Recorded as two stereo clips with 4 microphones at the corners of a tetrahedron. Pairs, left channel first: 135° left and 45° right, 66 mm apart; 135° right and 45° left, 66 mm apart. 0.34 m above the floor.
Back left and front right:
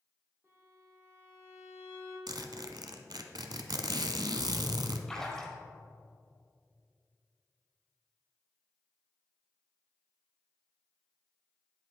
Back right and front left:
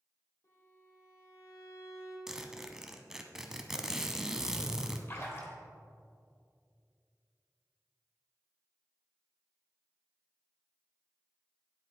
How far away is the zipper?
About 0.6 m.